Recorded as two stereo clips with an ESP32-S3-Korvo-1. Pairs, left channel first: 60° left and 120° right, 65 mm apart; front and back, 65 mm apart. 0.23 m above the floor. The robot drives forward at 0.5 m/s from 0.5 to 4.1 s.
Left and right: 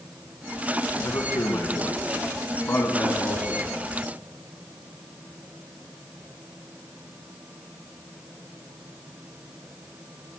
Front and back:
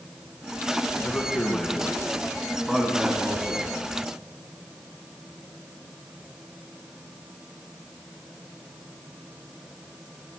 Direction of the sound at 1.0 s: 65° left.